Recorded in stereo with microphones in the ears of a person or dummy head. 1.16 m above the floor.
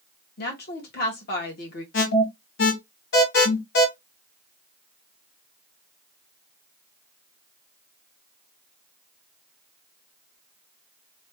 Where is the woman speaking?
50° left (ahead or behind), 1.7 m.